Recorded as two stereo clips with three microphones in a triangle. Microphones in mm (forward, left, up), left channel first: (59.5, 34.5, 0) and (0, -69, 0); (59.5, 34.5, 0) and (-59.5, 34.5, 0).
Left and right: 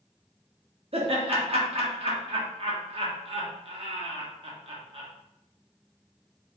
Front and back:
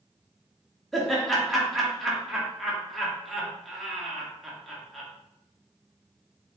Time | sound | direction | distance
0.9 | laughter | 90° right | 1.2 m